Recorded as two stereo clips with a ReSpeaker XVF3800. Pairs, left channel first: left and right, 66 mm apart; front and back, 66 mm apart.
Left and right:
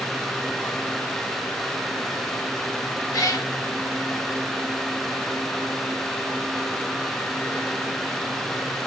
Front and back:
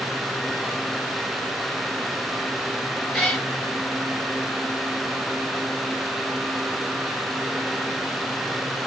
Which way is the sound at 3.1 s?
90° left.